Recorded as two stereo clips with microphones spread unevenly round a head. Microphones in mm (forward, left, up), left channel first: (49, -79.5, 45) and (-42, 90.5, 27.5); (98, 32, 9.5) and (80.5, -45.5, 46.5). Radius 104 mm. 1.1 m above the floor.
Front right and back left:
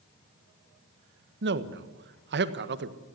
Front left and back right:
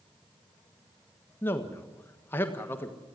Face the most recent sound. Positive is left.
turn(degrees=125)